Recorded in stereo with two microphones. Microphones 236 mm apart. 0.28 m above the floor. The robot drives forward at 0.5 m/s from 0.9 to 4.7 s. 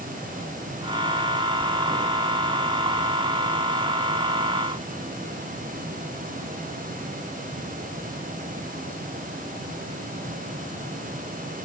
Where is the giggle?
I don't hear a giggle.